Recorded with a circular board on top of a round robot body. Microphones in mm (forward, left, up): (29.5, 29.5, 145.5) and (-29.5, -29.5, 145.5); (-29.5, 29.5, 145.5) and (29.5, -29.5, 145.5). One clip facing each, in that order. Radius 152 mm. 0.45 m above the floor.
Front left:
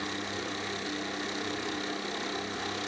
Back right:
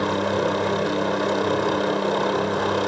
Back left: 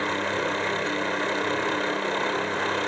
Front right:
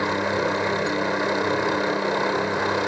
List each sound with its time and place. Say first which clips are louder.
0.0 s a helicopter: back right 14 dB, front right 4 dB; 120° right